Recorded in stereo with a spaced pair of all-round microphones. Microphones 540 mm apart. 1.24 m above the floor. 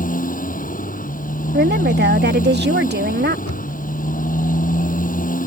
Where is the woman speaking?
20° right (ahead or behind).